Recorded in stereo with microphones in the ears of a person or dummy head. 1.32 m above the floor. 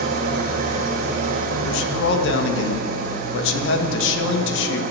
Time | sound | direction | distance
0.0 | an engine running | 50° right (ahead or behind) | 1.2 m
1.6 | a man speaking | 80° left | 1.3 m